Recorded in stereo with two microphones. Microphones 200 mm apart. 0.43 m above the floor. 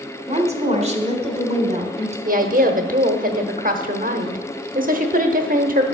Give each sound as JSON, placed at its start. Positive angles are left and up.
{"t": 0.3, "sound": "a woman speaking", "side_deg": -30, "distance_m": 1.3}
{"t": 2.2, "sound": "a woman speaking", "side_deg": -40, "distance_m": 1.0}